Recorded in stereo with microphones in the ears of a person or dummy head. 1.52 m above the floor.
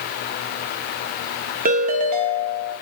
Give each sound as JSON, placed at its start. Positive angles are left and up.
{"t": 1.6, "sound": "a ringtone", "side_deg": -40, "distance_m": 1.2}